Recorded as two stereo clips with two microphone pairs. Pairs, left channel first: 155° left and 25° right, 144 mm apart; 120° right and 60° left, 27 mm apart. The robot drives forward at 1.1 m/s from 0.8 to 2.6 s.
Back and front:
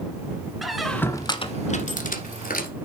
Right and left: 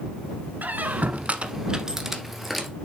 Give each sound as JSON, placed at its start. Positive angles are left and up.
{"t": 0.6, "sound": "a squeak", "azimuth_deg": 70, "distance_m": 1.0}